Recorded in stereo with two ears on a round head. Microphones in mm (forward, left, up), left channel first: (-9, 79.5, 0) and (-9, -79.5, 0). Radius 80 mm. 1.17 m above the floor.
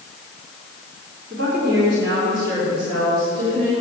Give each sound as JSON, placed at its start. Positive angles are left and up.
{"t": 1.3, "sound": "a woman speaking", "side_deg": -50, "distance_m": 3.5}